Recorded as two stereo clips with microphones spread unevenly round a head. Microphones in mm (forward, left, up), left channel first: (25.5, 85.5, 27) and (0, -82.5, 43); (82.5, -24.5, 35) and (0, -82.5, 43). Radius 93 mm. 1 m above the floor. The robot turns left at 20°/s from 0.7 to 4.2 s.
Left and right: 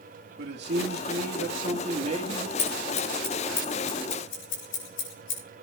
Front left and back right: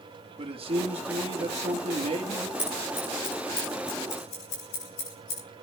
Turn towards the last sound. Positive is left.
turn(degrees=75)